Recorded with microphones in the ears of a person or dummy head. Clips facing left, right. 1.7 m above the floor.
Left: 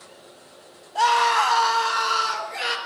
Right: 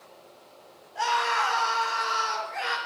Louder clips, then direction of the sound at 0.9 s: Left 7 dB; 85° left.